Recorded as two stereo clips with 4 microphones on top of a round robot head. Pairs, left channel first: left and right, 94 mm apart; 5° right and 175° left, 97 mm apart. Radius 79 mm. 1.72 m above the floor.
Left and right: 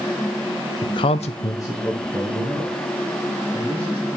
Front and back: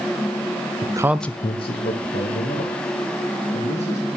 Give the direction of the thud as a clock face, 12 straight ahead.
I don't hear a thud.